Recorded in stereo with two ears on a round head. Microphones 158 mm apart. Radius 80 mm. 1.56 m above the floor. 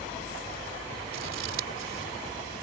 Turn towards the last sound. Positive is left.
turn(degrees=-90)